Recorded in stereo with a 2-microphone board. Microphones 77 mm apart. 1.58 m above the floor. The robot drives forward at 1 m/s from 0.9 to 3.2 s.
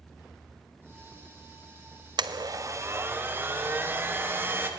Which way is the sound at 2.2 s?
65° right (ahead or behind).